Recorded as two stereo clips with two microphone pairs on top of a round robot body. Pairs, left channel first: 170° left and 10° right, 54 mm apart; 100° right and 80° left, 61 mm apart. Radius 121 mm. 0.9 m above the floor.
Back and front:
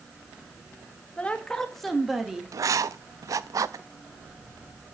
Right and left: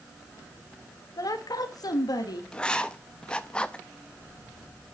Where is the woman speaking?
120° right, 1.6 m; by 2.4 s 85° right, 2.5 m.